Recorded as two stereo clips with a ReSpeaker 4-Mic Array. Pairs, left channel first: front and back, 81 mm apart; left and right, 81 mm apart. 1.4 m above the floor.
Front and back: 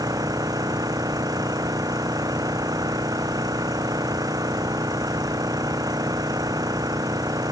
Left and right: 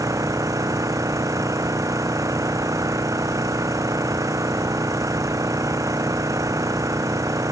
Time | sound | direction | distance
0.0 | an engine running | 140° right | ?